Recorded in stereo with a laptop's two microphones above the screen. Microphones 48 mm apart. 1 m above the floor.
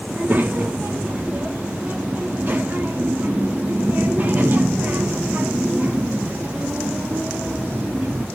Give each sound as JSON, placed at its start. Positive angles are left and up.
{"t": 0.1, "sound": "a child speaking", "side_deg": -45, "distance_m": 0.7}